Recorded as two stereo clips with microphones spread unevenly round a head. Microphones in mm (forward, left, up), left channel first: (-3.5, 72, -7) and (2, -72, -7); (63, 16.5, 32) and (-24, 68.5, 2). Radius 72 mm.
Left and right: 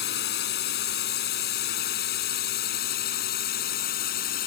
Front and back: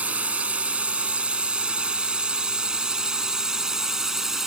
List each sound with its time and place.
0.0 s a drone: 70° left; by 4.5 s 65° left